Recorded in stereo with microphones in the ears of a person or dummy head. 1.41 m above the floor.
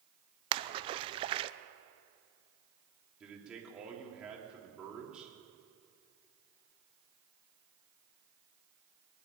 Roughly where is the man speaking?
Centre.